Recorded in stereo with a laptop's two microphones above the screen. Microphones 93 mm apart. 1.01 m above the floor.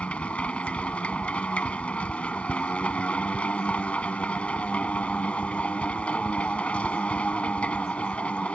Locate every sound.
0.0 s a machine running: 15° left (ahead or behind)